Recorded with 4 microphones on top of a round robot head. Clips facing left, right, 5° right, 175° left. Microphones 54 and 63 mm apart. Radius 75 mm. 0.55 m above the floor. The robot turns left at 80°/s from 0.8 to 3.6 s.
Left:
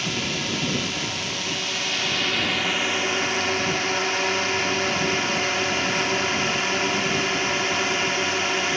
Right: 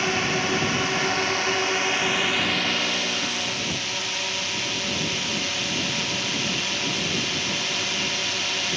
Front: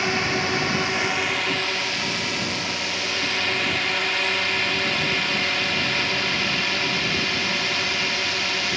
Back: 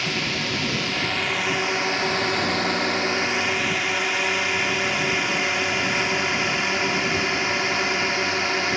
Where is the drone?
55° right; by 8.8 s 125° left.